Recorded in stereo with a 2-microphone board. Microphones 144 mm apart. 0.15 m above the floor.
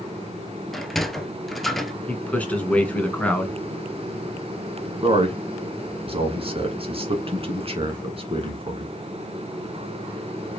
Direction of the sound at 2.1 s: 10° left (ahead or behind).